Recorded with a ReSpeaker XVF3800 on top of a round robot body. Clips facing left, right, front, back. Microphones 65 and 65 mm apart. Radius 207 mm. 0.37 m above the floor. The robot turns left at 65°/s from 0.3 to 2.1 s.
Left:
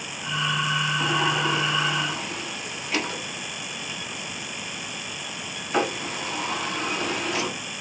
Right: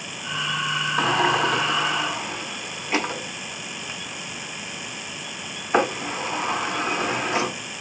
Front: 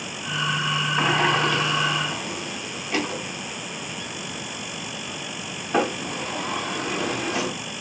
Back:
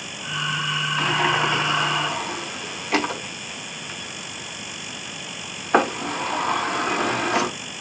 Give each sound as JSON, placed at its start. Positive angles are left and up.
{"t": 1.0, "sound": "a sliding door", "azimuth_deg": -75, "distance_m": 0.6}